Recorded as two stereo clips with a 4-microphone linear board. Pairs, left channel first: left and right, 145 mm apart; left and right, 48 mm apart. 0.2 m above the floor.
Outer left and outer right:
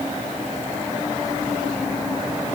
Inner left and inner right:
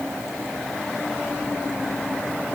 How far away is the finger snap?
I don't hear a finger snap.